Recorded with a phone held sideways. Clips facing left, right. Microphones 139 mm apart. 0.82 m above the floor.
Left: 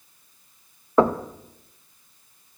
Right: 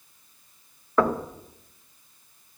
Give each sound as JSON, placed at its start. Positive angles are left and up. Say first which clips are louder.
{"t": 1.0, "sound": "knocking", "louder": "left 4 dB", "side_deg": 25, "distance_m": 0.6}